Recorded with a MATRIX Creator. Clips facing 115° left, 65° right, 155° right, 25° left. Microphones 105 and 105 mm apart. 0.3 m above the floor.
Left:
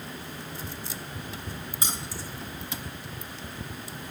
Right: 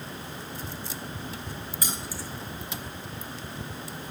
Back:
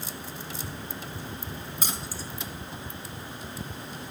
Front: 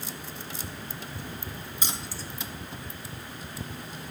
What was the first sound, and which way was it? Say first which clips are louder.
Keys jangling: left 1 dB, even; 170° left.